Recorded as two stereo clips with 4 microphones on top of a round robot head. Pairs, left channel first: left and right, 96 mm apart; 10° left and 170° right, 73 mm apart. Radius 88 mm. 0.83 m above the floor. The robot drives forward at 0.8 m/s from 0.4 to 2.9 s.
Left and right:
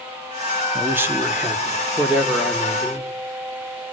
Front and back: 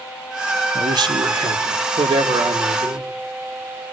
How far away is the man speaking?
About 1.6 m.